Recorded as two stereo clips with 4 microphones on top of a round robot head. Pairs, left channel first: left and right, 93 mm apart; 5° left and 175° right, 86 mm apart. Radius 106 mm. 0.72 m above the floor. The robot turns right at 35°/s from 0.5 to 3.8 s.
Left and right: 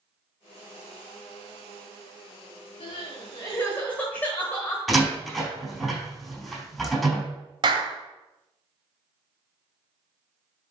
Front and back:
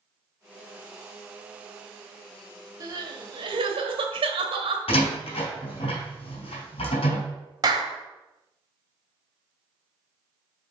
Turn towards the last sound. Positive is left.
turn(degrees=-130)